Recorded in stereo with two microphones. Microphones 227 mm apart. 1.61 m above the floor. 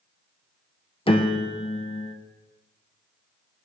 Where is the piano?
25° left (ahead or behind), 0.8 m.